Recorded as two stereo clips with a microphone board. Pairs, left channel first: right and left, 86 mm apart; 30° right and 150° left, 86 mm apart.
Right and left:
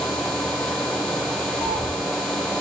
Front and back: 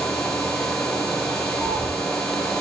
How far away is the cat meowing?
About 3 m.